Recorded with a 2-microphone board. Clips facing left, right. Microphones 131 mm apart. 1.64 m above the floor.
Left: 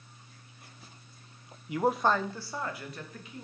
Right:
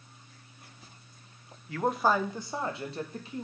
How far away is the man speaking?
About 0.7 m.